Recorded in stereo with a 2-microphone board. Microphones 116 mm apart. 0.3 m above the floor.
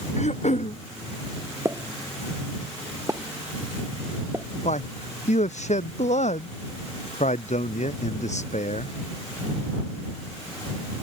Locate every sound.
0.2 s throat clearing: 75° left (ahead or behind)
1.6 s a pop: 25° right (ahead or behind)
4.7 s a man speaking: 80° left